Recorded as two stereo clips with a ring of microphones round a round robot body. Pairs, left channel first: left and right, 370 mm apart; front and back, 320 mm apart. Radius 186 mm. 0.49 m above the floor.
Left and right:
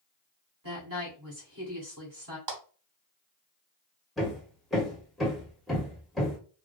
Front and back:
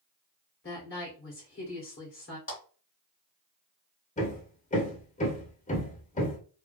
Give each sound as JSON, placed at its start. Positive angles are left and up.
{"t": 0.6, "sound": "a woman speaking", "azimuth_deg": -55, "distance_m": 1.7}
{"t": 2.5, "sound": "a clap", "azimuth_deg": -65, "distance_m": 1.7}
{"t": 4.2, "sound": "hammering", "azimuth_deg": 0, "distance_m": 0.9}